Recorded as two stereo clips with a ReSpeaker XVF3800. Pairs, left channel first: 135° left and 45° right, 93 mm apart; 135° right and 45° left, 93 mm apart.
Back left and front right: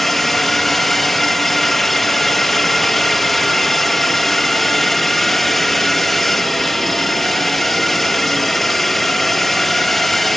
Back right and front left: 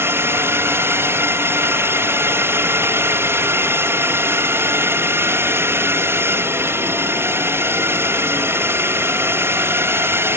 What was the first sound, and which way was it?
A drone, 50° left.